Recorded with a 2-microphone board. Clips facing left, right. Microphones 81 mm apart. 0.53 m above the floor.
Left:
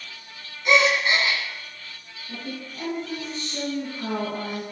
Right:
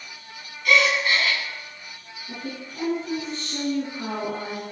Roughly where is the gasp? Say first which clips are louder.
Left 1 dB; left.